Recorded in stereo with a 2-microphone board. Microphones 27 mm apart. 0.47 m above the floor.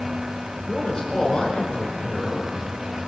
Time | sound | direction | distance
0.7 | a man speaking | 10° left (ahead or behind) | 1.7 m